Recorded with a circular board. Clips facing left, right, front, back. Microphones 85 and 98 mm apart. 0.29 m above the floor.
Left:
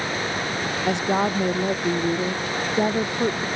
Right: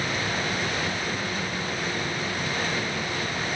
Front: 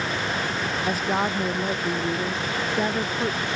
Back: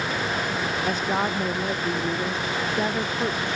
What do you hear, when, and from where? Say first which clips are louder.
0.9 s a woman speaking: left 8 dB, front 1 dB; 90° left